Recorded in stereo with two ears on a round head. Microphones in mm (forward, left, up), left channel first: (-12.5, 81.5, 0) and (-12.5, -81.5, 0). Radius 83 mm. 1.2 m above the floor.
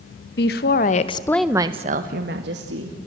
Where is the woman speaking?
60° left (ahead or behind), 1.8 m; by 3.0 s 70° right (ahead or behind), 2.5 m.